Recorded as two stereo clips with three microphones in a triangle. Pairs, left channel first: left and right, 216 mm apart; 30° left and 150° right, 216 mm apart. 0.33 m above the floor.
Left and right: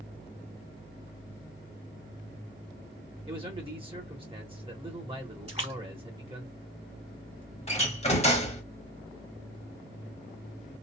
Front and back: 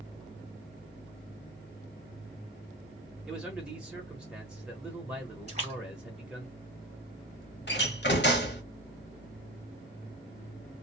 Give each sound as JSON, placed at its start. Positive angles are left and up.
{"t": 3.2, "sound": "a man speaking", "azimuth_deg": -70, "distance_m": 1.0}
{"t": 5.5, "sound": "a splash", "azimuth_deg": -120, "distance_m": 1.4}
{"t": 7.7, "sound": "a door slam", "azimuth_deg": 40, "distance_m": 0.9}